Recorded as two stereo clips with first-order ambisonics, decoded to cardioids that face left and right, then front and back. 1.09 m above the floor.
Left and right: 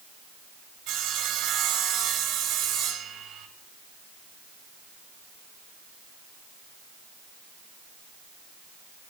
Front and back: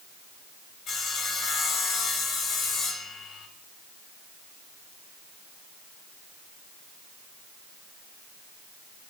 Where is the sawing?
60° right, 1.9 m.